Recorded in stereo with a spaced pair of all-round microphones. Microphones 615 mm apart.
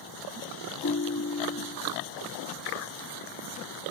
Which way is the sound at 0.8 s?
25° left (ahead or behind).